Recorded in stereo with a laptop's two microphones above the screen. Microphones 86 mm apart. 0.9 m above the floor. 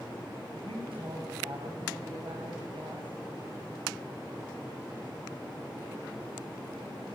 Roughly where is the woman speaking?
Right.